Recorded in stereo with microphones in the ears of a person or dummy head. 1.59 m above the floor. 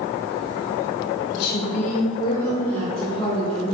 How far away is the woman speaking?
About 0.5 m.